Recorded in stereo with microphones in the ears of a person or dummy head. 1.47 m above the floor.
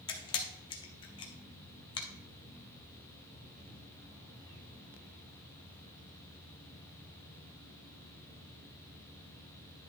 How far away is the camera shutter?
About 1.1 m.